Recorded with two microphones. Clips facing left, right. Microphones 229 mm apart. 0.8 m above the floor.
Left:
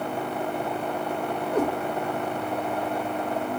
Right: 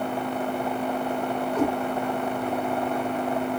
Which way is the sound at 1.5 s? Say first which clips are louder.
Even; 55° left (ahead or behind).